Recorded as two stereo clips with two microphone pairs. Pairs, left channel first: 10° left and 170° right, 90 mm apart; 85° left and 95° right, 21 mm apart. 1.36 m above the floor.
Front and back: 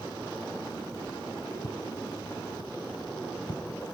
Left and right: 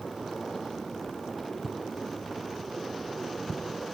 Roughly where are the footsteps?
Ahead.